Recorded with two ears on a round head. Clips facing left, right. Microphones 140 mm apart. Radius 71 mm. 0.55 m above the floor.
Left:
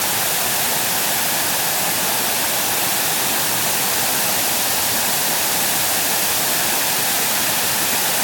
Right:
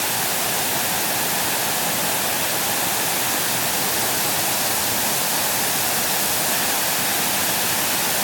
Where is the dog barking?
I don't hear a dog barking.